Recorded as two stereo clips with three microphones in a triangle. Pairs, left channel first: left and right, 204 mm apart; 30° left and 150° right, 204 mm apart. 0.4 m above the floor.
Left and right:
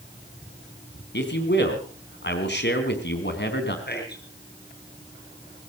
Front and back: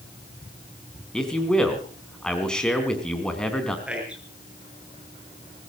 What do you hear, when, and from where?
1.1 s a man speaking: 115° left, 3.5 m
3.9 s a man speaking: 125° left, 7.5 m